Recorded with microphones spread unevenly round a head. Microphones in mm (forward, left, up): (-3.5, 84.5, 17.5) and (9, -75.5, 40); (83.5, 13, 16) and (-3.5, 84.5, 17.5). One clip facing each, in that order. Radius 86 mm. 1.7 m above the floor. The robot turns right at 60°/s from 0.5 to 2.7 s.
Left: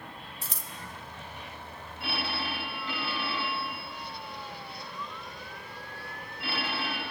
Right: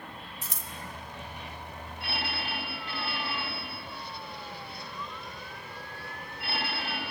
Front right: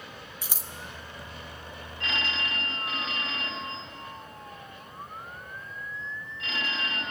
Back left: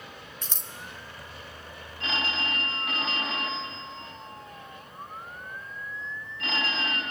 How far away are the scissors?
About 1.0 m.